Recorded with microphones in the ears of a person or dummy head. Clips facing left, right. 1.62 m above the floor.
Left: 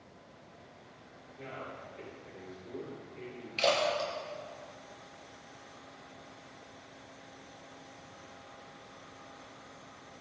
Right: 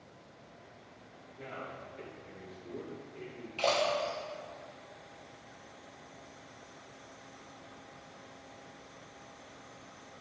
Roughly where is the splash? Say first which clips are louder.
Left 1 dB; left.